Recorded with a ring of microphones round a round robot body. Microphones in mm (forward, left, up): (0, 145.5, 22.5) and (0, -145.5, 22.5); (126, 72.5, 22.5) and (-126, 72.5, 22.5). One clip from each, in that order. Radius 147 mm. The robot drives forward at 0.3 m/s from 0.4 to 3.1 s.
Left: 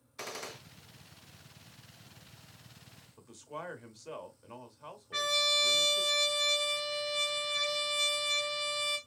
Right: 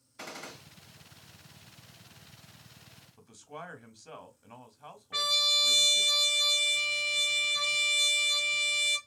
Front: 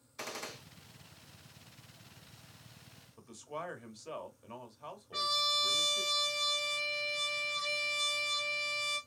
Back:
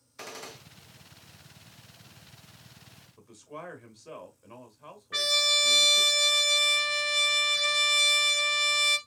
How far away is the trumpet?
About 1.0 m.